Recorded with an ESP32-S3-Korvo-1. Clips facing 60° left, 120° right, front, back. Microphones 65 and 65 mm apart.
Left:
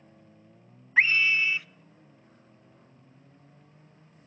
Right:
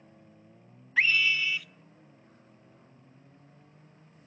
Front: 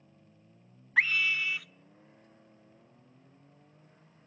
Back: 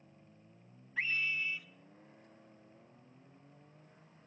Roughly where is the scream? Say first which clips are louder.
Left 3 dB, front 8 dB; ahead.